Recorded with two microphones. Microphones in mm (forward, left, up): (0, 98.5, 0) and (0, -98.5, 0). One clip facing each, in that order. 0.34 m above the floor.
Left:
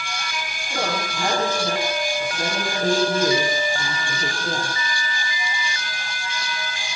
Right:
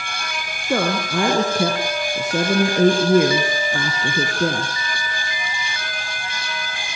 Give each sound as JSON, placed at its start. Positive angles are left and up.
{"t": 0.7, "sound": "a woman speaking", "side_deg": -75, "distance_m": 5.5}